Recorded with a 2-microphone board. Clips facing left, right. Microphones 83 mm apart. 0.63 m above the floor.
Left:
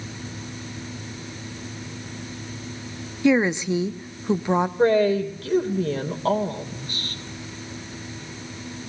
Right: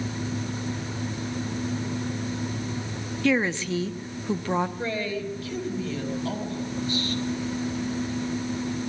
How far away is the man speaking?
About 3 m.